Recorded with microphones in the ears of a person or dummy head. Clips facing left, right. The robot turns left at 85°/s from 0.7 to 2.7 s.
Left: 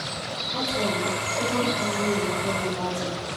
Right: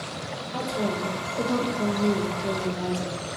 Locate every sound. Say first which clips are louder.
0.5 s a woman speaking: left 1 dB; straight ahead, 1.5 m; by 3.2 s 170° right, 1.5 m